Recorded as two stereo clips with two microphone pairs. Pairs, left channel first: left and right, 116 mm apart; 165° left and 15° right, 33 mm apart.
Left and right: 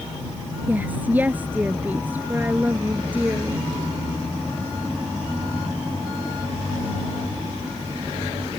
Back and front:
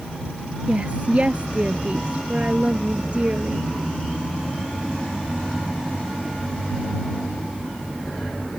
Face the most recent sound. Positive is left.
turn(degrees=-25)